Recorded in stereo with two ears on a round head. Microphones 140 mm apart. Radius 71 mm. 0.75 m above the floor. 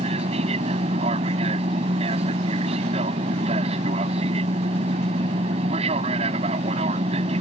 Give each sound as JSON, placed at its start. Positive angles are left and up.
{"t": 0.0, "sound": "an aircraft", "side_deg": -40}